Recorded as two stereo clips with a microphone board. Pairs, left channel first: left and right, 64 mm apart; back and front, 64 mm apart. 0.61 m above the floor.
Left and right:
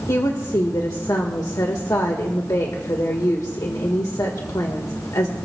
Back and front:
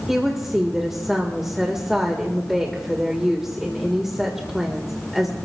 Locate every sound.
0.1 s a woman speaking: 85° left, 1.6 m